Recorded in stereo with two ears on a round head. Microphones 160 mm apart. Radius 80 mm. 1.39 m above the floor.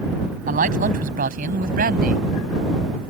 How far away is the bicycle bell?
No bicycle bell in this recording.